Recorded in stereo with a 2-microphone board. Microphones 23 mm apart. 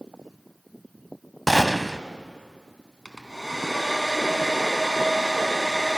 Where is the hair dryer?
5° left (ahead or behind), 2.5 m.